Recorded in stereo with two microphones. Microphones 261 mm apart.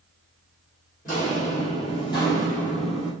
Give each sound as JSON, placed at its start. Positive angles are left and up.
{"t": 1.1, "sound": "footsteps", "side_deg": 30, "distance_m": 1.8}